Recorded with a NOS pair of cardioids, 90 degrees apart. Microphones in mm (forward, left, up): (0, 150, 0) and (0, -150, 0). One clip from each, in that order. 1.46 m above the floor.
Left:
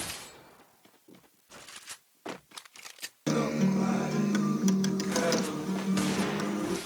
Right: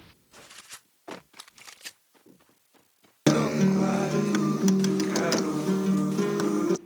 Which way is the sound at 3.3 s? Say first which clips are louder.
Right 6 dB; 65° right.